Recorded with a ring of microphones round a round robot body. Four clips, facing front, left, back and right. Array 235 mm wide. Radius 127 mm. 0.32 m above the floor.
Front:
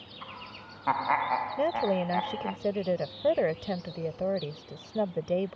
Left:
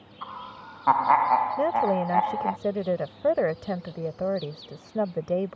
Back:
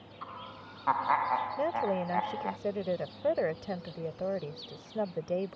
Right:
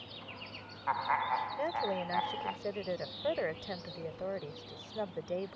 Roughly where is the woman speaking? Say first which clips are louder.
Left 11 dB, front 3 dB; left.